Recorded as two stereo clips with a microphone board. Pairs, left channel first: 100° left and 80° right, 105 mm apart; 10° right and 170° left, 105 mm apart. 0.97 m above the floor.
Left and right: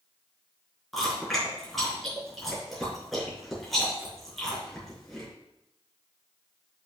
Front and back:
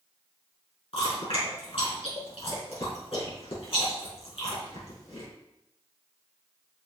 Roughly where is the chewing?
Ahead.